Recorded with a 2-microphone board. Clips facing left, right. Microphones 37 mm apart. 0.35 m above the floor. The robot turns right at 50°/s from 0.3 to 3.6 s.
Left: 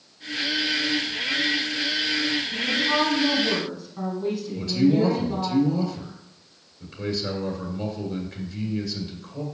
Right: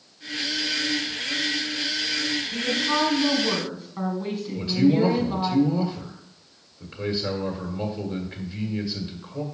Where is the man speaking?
20° right (ahead or behind), 1.6 m.